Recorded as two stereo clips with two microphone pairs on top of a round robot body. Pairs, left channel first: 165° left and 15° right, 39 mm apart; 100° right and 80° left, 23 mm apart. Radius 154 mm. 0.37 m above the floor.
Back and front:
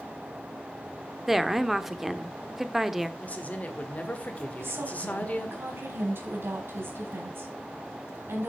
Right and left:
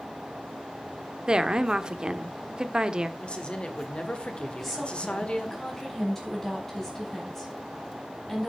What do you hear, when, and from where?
1.3 s a woman speaking: 60° left, 1.2 m
3.2 s a woman speaking: 150° right, 1.8 m
4.6 s a woman speaking: 25° right, 4.5 m